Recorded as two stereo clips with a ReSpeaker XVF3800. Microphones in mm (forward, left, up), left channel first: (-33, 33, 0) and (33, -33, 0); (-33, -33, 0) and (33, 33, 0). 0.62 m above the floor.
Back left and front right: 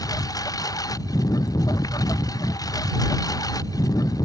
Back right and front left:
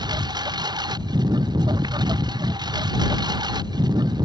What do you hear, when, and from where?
0.0 s a lawn mower: 85° left